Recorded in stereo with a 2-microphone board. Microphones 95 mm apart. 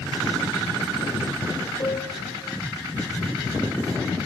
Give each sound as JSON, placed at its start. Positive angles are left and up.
{"t": 1.8, "sound": "a piano", "side_deg": 40, "distance_m": 3.0}